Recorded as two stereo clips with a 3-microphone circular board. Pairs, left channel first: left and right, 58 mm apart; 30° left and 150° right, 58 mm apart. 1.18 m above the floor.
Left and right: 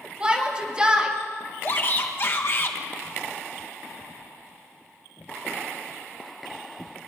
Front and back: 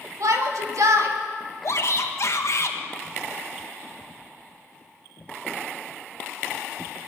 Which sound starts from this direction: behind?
A shout, at 0.2 s.